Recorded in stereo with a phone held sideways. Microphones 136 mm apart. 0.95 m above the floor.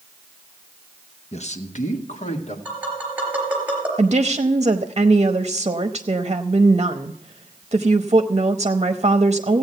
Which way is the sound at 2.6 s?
10° right (ahead or behind).